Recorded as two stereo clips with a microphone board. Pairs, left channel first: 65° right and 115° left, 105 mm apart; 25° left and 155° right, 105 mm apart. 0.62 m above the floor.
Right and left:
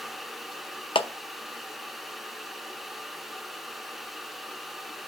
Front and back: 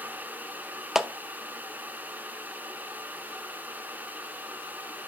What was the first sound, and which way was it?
A clap, 70° right.